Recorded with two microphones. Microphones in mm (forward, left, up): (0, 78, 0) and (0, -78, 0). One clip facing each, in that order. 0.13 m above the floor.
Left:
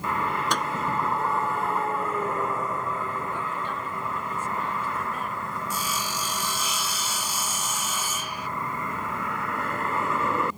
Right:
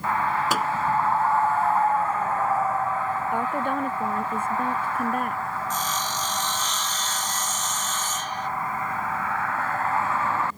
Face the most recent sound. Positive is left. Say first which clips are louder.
# right 3 dB
turn(degrees=10)  # may be behind; listen again after turning